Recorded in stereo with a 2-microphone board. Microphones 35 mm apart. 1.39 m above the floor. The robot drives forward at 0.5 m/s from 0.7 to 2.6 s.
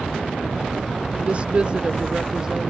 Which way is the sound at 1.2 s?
35° right (ahead or behind).